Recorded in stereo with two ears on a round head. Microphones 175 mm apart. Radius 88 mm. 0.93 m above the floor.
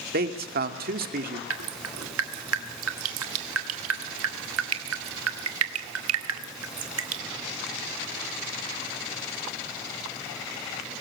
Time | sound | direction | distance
0.1 | a man speaking | 50° right (ahead or behind) | 2 m
1.5 | dripping | 85° right | 1.9 m